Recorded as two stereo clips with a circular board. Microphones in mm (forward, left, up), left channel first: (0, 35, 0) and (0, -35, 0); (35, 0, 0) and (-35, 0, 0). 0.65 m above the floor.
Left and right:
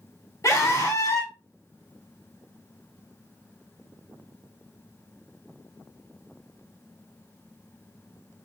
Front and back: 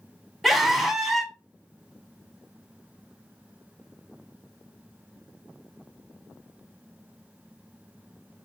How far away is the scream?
About 1.5 m.